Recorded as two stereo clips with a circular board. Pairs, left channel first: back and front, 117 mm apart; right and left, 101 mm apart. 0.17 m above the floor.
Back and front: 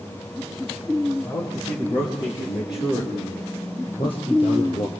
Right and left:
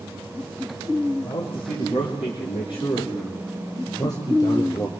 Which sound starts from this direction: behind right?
A man speaking, at 1.2 s.